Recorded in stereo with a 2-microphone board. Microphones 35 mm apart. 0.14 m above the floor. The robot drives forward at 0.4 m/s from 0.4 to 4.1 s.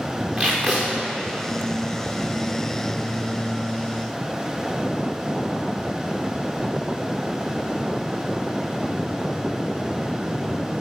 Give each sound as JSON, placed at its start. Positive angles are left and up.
{"t": 0.4, "sound": "tape being pulled", "side_deg": -35, "distance_m": 5.0}